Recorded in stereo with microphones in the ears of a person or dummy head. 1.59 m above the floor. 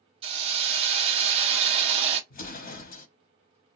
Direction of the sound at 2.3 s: 45° left (ahead or behind).